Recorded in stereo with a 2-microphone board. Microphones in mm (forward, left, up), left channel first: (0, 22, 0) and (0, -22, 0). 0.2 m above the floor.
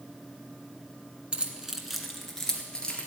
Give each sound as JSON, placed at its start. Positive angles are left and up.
{"t": 1.3, "sound": "keys jangling", "side_deg": -25, "distance_m": 1.3}